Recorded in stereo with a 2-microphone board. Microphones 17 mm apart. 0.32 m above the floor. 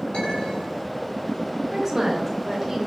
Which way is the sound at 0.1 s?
75° left (ahead or behind).